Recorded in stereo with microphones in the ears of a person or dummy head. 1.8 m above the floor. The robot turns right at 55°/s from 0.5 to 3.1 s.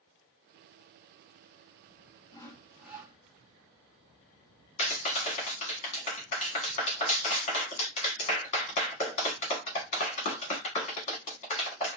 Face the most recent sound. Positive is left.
turn(degrees=40)  # may be behind; listen again after turning